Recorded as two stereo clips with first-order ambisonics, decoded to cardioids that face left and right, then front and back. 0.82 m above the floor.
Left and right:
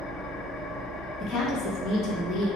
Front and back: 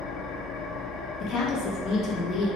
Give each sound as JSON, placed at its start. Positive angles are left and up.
{"t": 0.0, "sound": "an engine running", "azimuth_deg": 45, "distance_m": 0.9}
{"t": 1.2, "sound": "a woman speaking", "azimuth_deg": 45, "distance_m": 0.6}